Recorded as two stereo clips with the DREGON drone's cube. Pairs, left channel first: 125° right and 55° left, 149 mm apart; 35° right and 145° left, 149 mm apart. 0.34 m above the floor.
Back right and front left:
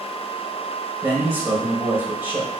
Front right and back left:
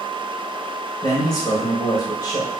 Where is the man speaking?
5° right, 1.4 m.